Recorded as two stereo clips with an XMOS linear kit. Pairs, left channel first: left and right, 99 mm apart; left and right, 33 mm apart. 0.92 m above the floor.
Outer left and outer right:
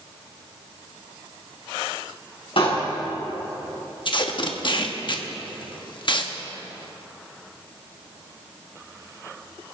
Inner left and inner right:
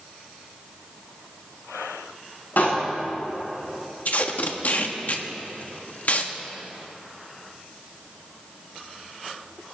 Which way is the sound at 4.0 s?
55° left (ahead or behind).